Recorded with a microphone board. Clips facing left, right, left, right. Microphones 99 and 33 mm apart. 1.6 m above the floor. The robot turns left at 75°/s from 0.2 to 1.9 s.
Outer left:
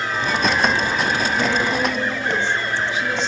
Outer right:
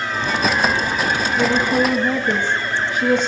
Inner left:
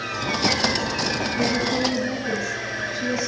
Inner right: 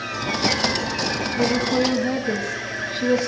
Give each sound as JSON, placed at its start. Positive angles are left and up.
{"t": 1.4, "sound": "a woman speaking", "azimuth_deg": -10, "distance_m": 3.0}